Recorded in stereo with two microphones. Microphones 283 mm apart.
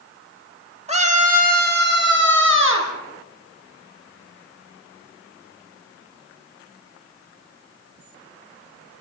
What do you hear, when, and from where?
0.9 s a scream: 25° right (ahead or behind), 5 m; by 2.9 s 50° right (ahead or behind), 6 m